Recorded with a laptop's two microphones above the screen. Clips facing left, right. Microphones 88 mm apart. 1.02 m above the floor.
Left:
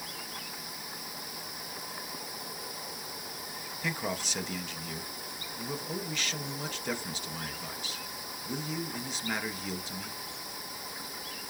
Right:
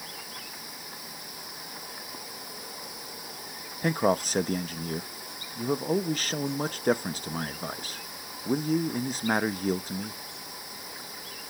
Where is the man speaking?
45° right (ahead or behind), 0.7 m.